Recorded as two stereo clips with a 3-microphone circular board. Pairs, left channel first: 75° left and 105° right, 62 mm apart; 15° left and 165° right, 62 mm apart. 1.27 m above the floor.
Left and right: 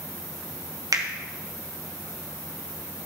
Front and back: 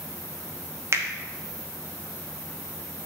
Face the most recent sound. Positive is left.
turn(degrees=-120)